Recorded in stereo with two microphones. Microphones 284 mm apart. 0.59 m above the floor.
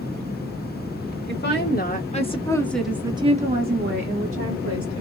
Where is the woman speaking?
40° left (ahead or behind), 1.6 m; by 5.0 s 55° right (ahead or behind), 1.8 m.